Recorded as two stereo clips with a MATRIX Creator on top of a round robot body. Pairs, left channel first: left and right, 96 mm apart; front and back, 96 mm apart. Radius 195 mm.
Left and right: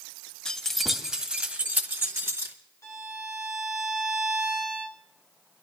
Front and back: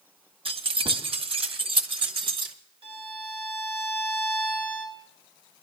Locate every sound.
0.5 s keys jangling: 175° left, 1.3 m; by 2.5 s 145° right, 1.9 m
2.8 s a violin: 150° left, 0.9 m